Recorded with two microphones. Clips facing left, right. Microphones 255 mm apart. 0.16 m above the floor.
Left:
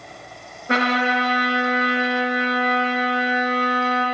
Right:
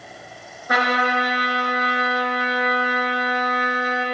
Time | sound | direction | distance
0.7 | a trumpet | 25° left (ahead or behind) | 1.4 m